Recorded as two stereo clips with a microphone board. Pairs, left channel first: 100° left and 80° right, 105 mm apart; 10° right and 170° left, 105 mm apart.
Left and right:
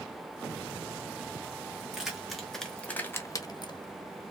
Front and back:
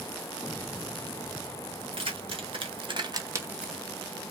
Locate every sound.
1.8 s keys jangling: 165° right, 1.8 m; by 3.8 s 80° left, 0.8 m